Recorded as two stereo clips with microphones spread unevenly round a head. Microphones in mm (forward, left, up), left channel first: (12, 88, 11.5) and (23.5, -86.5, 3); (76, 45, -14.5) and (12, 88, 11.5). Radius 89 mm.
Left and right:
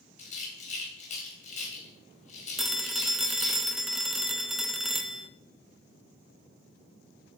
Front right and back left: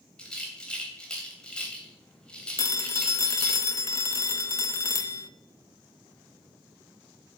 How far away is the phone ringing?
About 0.7 m.